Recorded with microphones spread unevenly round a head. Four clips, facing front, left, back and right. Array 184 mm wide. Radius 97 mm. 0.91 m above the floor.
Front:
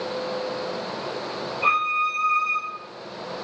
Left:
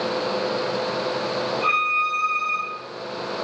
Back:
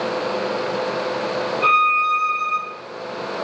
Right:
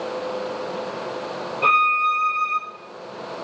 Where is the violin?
110° right, 6.5 m.